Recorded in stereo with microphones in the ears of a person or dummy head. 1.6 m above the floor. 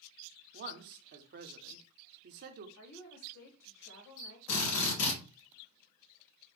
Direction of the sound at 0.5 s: 55° right (ahead or behind).